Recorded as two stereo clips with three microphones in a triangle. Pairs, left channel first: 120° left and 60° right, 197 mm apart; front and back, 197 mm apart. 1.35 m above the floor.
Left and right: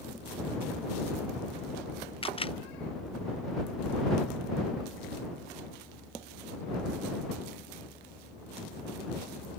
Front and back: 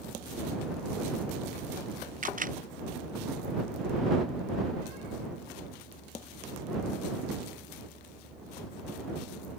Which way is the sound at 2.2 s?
165° left.